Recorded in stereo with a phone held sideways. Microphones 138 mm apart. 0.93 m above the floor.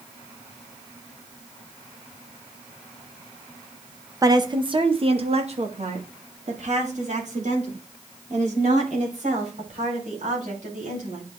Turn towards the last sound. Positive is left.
turn(degrees=-60)  # may be behind; listen again after turning